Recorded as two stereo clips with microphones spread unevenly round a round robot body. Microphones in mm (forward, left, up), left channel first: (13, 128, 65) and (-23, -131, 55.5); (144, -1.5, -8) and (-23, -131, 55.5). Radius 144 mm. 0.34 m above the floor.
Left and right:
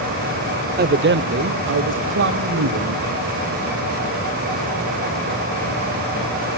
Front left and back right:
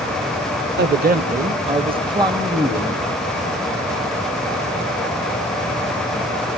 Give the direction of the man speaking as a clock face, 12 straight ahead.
4 o'clock.